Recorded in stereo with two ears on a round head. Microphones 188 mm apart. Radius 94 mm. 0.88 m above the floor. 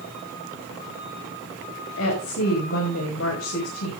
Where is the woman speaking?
70° left (ahead or behind), 5.5 m.